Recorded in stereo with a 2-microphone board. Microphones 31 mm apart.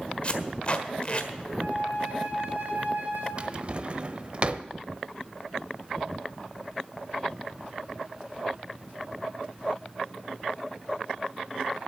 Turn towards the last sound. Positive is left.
turn(degrees=-35)  # may be behind; listen again after turning